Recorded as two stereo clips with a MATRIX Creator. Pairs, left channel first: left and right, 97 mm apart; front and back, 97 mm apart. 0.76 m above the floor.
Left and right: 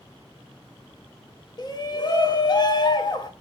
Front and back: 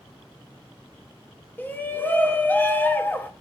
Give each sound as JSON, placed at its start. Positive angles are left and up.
{"t": 1.6, "sound": "a shout", "azimuth_deg": 65, "distance_m": 0.7}